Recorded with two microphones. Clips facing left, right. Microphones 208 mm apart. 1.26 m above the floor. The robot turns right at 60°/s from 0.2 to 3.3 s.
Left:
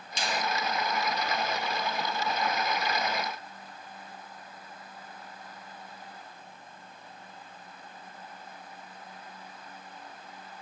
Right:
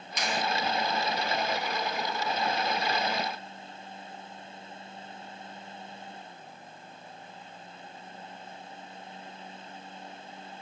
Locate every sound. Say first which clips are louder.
0.2 s a finger snap: right 1 dB; 30° left (ahead or behind), 0.8 m; by 0.4 s 45° left (ahead or behind), 0.8 m